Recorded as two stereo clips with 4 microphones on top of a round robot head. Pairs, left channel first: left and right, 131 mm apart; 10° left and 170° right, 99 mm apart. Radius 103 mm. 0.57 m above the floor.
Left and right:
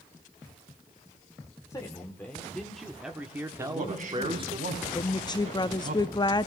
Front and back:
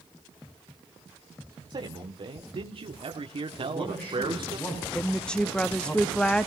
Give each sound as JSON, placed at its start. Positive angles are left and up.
{"t": 1.7, "sound": "a man speaking", "azimuth_deg": 160, "distance_m": 1.5}
{"t": 3.6, "sound": "a man speaking", "azimuth_deg": -65, "distance_m": 6.5}
{"t": 5.0, "sound": "a woman speaking", "azimuth_deg": 85, "distance_m": 0.7}